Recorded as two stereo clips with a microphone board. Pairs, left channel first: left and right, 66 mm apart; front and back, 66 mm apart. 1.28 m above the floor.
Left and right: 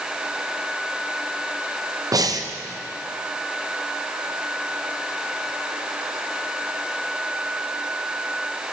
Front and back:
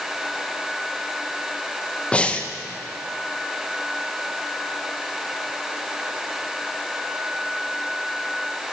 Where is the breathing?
70° right, 0.7 m.